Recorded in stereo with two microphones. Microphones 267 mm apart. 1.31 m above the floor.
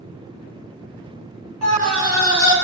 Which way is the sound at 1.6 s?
85° left.